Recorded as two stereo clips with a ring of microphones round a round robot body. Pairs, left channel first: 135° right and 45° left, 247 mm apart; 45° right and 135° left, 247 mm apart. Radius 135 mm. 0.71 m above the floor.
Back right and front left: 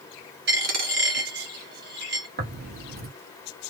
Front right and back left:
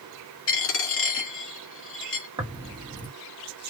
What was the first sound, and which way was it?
A dropped coin, 5° right.